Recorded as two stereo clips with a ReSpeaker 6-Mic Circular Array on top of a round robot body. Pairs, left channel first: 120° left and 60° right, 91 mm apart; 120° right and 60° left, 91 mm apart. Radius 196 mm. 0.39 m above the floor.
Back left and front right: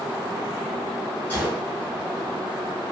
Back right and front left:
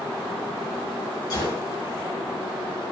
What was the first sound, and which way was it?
A gunshot, 170° right.